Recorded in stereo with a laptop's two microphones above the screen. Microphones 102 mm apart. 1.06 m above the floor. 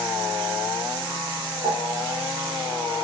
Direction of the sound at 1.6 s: 60° right (ahead or behind).